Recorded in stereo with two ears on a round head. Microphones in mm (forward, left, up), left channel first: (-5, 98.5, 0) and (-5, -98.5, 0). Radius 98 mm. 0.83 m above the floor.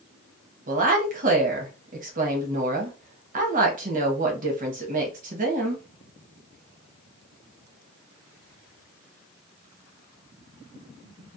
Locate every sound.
0.7 s a woman speaking: 40° right (ahead or behind), 0.8 m